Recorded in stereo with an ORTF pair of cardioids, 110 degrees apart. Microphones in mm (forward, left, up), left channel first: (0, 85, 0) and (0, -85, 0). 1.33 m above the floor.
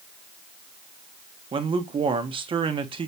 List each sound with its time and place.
1.5 s a man speaking: 30° right, 0.7 m